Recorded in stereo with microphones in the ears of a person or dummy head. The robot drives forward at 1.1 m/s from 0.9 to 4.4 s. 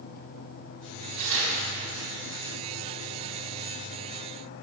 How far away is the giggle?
I don't hear a giggle.